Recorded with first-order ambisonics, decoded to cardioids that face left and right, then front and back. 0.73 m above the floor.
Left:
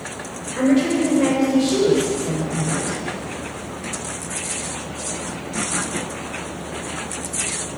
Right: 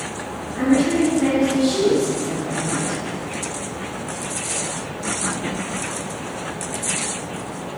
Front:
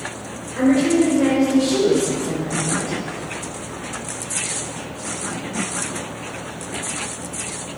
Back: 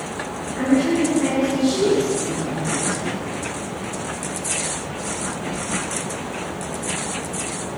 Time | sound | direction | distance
0.5 | a woman speaking | 65° left | 2.5 m